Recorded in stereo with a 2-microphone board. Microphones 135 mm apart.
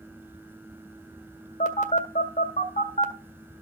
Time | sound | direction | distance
1.6 | a phone buzzing | 60° left (ahead or behind) | 1.7 m